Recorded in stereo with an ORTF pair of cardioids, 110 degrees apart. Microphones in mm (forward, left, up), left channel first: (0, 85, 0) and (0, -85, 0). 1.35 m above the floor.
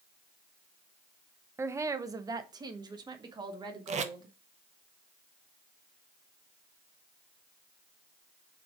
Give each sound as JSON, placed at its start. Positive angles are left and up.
{"t": 1.6, "sound": "a woman speaking", "azimuth_deg": -15, "distance_m": 0.7}
{"t": 3.9, "sound": "tape being pulled", "azimuth_deg": -45, "distance_m": 0.9}